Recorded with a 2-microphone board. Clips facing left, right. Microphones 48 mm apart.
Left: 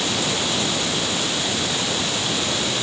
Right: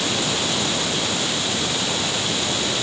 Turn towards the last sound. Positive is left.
No sound to turn to.